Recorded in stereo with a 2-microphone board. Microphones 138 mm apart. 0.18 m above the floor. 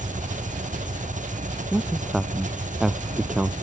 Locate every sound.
0.0 s an engine running: 70° right (ahead or behind)
1.7 s a man speaking: 5° right (ahead or behind)